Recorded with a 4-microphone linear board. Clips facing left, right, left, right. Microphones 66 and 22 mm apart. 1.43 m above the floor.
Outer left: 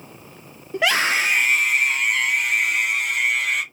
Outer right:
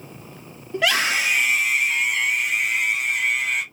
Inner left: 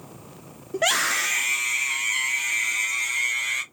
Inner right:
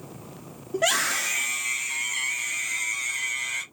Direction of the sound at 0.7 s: 20° left (ahead or behind).